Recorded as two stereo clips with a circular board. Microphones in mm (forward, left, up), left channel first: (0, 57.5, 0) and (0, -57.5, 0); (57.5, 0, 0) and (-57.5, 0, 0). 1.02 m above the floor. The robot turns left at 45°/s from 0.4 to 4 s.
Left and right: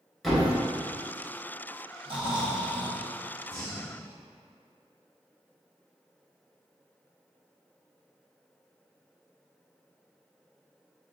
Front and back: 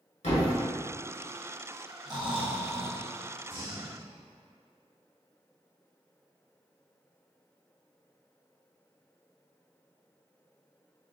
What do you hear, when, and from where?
0.2 s a thud: straight ahead, 1.8 m; by 0.5 s 5° right, 1.8 m
2.0 s snoring: 125° right, 0.9 m; by 3.0 s 170° right, 0.9 m
3.5 s breathing: 130° right, 1.5 m; by 4.1 s 155° right, 1.5 m